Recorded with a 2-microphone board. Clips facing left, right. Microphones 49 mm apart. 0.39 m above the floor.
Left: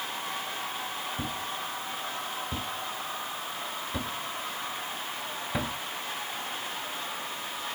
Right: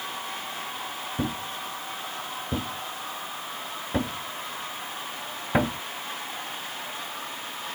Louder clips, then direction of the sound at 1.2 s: Right 3 dB; 35° right (ahead or behind).